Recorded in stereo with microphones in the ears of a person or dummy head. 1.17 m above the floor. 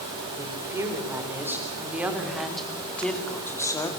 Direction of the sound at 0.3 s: 15° right (ahead or behind).